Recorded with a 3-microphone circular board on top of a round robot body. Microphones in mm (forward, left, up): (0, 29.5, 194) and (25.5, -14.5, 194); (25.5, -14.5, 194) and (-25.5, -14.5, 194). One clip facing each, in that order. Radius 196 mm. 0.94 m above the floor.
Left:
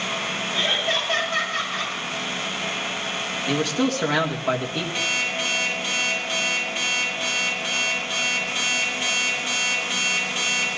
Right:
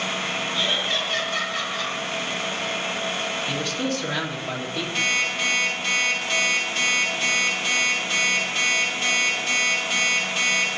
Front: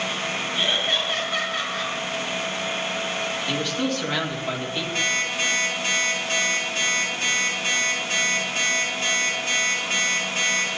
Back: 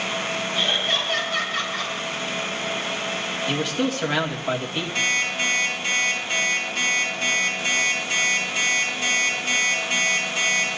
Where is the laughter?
80° left, 9.5 m.